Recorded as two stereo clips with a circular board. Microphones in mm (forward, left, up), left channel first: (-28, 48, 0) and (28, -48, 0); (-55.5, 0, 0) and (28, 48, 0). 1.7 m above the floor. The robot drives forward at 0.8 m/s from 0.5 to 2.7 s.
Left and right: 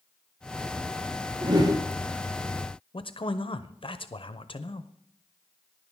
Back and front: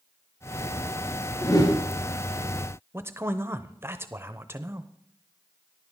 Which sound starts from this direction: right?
A whoosh, at 1.4 s.